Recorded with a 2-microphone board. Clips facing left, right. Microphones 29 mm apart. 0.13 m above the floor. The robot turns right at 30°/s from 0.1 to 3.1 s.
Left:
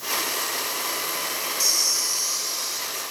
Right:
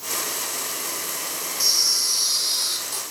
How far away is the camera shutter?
About 3.5 m.